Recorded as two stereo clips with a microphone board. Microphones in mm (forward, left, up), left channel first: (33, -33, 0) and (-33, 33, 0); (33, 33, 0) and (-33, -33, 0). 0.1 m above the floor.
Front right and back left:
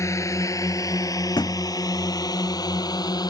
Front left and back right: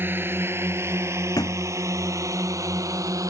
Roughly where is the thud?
Ahead.